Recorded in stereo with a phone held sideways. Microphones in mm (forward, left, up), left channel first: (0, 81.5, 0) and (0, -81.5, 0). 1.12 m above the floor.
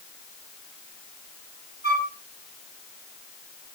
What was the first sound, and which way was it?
A flute, 80° left.